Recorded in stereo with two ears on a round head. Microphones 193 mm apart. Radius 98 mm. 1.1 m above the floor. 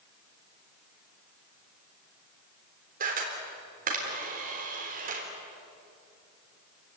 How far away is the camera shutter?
About 4 m.